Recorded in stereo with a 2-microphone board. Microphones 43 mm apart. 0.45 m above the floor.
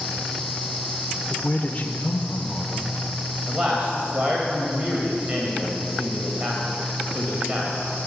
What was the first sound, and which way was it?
A man speaking, 35° left (ahead or behind).